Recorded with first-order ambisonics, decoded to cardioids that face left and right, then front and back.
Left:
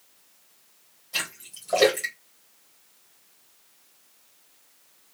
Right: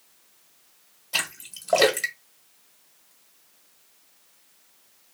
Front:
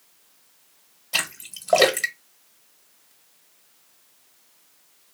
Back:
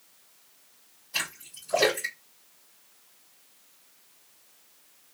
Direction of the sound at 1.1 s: 25° right.